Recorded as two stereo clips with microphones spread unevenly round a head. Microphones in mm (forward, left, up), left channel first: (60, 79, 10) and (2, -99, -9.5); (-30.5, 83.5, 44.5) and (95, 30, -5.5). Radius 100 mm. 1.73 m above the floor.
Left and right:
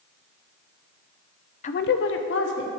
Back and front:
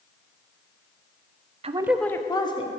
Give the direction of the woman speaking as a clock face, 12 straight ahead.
11 o'clock.